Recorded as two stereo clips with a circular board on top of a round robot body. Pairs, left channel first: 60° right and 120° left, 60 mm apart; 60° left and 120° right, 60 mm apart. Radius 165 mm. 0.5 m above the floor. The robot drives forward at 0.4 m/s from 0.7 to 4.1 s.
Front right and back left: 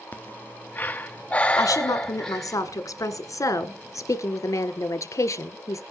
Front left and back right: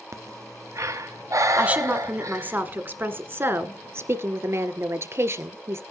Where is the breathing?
115° right, 1.2 m; by 2.6 s 140° right, 1.6 m.